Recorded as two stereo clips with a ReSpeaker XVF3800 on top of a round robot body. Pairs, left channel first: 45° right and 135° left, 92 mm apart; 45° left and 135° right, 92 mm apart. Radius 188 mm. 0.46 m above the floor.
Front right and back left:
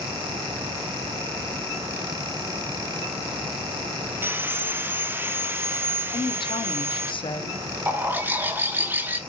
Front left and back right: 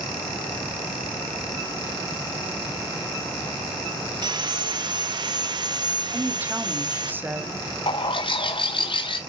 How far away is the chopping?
No chopping in this recording.